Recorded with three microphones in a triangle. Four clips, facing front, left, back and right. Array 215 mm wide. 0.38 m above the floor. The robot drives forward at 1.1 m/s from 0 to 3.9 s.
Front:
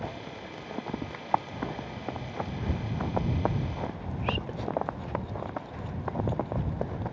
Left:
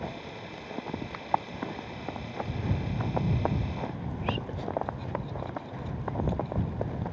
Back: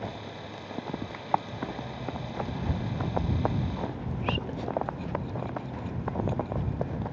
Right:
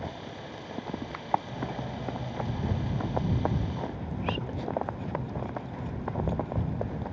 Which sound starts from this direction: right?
Cutlery clinking, at 1.5 s.